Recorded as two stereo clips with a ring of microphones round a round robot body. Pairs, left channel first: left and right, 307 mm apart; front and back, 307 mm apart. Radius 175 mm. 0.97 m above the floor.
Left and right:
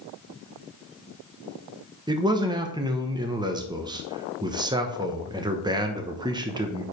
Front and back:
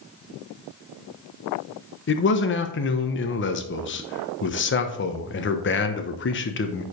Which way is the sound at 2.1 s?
20° right.